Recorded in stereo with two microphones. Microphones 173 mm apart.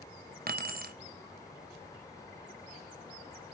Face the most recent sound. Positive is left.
turn(degrees=-55)  # may be behind; listen again after turning